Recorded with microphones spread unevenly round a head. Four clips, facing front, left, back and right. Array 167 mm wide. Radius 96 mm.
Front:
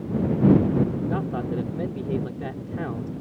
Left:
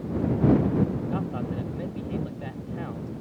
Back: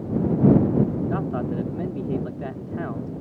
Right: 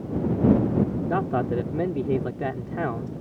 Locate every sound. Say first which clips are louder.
1.1 s a man speaking: right 6 dB, back 1 dB; 95° right